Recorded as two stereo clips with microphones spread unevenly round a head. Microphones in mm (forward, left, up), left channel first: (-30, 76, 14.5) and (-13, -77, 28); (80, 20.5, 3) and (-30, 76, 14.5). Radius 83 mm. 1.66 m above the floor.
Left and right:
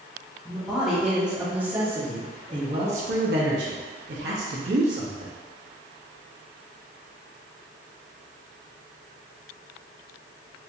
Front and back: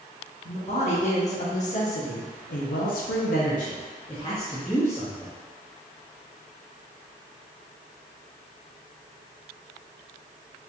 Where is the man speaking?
5° left, 1.9 m; by 5.3 s 115° right, 1.3 m.